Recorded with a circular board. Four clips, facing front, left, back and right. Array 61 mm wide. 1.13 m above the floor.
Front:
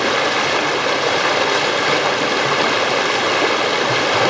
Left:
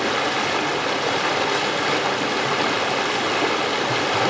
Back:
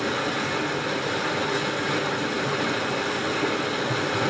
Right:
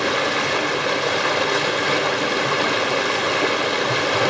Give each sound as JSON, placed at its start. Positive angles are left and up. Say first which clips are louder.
{"t": 0.0, "sound": "running water", "louder": "right 1 dB, front 9 dB", "azimuth_deg": 0, "distance_m": 0.9}